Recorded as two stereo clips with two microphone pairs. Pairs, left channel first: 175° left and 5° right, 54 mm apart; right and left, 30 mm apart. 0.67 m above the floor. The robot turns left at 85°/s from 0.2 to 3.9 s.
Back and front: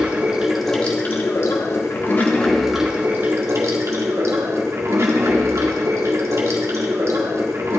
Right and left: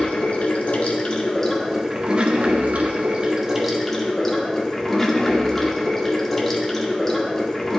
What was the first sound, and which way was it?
Running water, 60° right.